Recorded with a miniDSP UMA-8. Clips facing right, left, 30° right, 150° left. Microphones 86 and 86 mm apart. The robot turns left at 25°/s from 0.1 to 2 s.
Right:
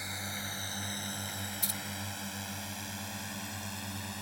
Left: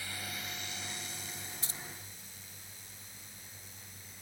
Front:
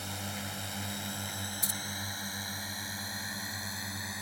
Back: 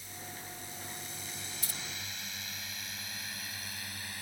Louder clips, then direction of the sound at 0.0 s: Right 3 dB, front 7 dB; 20° right.